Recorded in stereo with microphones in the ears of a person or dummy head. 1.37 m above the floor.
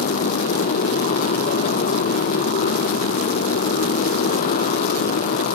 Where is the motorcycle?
45° left (ahead or behind).